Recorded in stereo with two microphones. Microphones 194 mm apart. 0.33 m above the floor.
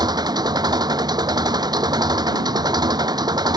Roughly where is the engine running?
Right.